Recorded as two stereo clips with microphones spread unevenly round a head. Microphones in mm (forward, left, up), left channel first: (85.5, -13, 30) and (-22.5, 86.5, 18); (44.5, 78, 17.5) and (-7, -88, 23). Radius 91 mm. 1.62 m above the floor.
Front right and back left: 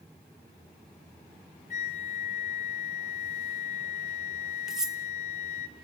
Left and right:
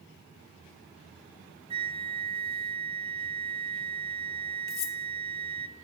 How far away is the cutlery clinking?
About 1.3 m.